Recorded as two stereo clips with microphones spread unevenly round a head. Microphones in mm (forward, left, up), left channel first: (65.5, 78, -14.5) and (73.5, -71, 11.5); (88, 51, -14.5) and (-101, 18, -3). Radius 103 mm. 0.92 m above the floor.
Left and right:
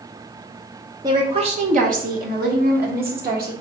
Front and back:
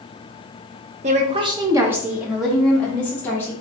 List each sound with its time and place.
1.0 s a woman speaking: 155° right, 0.7 m; by 3.5 s 70° right, 1.7 m